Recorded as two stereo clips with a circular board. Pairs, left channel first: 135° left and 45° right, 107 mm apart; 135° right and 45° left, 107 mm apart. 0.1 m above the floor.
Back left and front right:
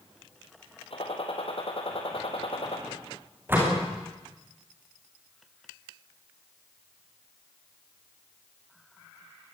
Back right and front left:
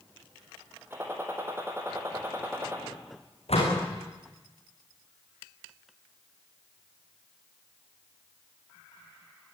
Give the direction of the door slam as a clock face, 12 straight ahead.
4 o'clock.